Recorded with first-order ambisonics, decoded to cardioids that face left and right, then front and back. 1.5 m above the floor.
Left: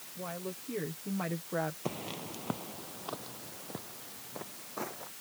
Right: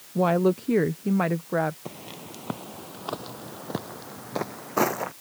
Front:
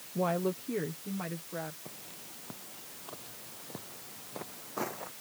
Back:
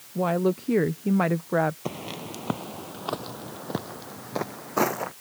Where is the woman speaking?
100° right; by 1.8 s 150° right.